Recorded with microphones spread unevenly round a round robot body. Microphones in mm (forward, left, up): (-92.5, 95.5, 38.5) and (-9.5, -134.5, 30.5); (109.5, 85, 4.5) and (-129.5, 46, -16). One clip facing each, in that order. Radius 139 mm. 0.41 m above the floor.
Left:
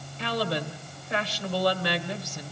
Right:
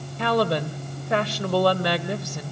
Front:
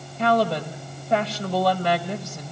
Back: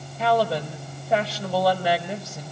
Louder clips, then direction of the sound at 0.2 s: Right 7 dB, front 1 dB; 90° right.